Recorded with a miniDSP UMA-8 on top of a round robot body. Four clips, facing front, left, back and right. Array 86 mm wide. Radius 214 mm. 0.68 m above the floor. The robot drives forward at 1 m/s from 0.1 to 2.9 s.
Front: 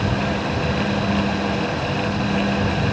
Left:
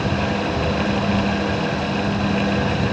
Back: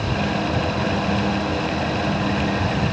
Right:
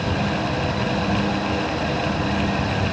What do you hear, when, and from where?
Only background noise.